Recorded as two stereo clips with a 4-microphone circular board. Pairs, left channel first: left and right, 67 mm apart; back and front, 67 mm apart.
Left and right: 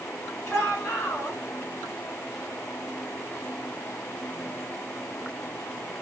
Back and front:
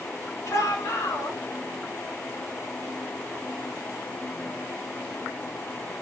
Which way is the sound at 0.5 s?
135° left.